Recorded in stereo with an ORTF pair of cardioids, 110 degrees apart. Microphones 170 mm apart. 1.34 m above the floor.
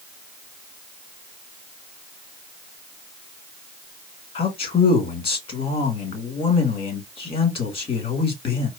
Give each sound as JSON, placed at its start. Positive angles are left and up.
{"t": 4.3, "sound": "a man speaking", "azimuth_deg": 35, "distance_m": 2.0}